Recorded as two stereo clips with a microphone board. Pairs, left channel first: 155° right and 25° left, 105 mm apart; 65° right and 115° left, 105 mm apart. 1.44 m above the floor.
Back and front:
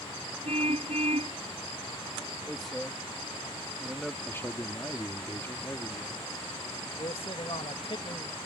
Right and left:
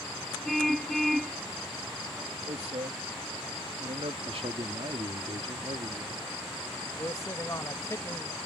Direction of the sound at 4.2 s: 135° left.